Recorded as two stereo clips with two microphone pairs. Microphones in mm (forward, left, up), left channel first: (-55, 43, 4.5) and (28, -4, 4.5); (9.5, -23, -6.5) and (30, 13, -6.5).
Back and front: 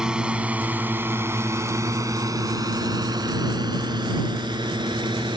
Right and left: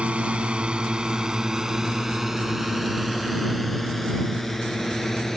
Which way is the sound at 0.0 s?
45° left.